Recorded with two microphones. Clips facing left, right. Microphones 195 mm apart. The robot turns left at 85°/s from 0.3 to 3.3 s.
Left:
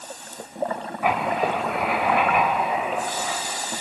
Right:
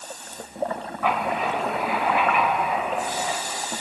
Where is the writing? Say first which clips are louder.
Left 2 dB; 170° left, 4 m; by 3.4 s 25° right, 4 m.